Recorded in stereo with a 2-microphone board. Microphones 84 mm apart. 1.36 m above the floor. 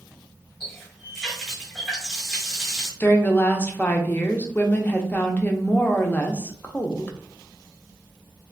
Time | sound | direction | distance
0.6 | a running tap | 5° right (ahead or behind) | 2 m
3.0 | a woman speaking | 20° left (ahead or behind) | 0.6 m